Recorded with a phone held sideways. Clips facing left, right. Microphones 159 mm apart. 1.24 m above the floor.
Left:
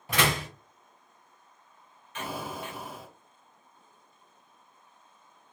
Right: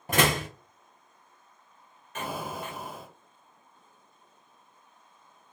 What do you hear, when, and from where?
0.1 s a door slam: 50° right (ahead or behind), 0.8 m
2.1 s an explosion: 45° right (ahead or behind), 1.1 m